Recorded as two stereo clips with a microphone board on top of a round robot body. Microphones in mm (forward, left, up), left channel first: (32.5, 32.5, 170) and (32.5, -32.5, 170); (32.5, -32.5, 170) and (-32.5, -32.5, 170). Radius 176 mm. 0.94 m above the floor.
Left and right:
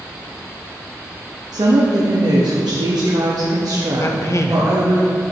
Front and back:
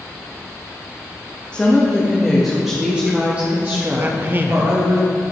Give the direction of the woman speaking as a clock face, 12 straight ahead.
2 o'clock.